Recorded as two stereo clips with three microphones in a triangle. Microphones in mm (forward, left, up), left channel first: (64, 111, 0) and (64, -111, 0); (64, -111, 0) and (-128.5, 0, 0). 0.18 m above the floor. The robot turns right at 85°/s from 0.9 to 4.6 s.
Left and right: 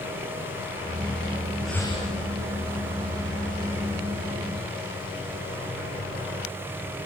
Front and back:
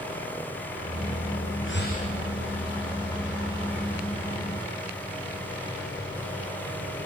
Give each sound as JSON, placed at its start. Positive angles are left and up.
{"t": 1.6, "sound": "breathing", "azimuth_deg": 0, "distance_m": 4.0}